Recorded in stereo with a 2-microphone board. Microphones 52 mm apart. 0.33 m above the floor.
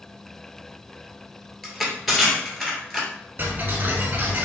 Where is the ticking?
40° right (ahead or behind), 1.1 m.